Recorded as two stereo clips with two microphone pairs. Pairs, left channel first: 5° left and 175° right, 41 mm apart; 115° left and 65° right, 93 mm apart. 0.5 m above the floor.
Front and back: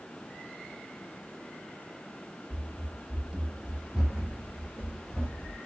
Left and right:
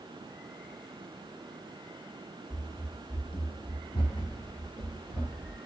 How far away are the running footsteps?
About 0.9 m.